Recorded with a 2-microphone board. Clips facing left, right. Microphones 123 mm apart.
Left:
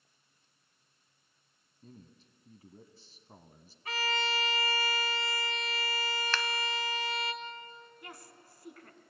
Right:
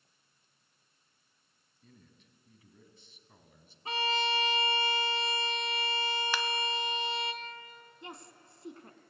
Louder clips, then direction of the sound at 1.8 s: Left 6 dB; 35° left (ahead or behind).